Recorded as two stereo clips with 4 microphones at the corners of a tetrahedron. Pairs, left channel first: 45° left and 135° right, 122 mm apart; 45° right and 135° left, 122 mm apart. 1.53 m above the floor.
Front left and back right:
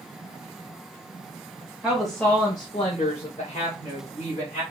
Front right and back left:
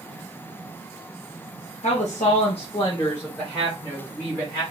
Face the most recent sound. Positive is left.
turn(degrees=65)